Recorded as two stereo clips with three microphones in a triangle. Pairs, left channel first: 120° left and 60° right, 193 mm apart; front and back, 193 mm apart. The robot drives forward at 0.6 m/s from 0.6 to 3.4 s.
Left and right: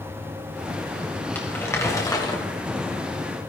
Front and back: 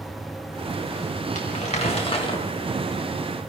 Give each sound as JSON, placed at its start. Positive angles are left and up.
{"t": 1.4, "sound": "crumpling", "azimuth_deg": 40, "distance_m": 2.0}